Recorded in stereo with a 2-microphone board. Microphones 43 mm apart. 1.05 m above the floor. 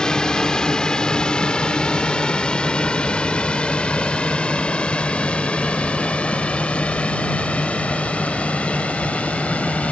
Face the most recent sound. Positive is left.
turn(degrees=35)  # may be behind; listen again after turning